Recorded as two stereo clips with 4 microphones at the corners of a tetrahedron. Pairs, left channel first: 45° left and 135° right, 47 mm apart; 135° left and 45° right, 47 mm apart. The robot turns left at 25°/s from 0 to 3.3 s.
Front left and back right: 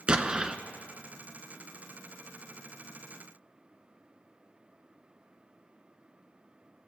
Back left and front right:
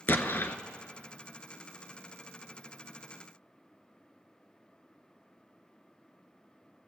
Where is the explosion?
165° left, 0.6 m; by 0.6 s 150° left, 0.6 m.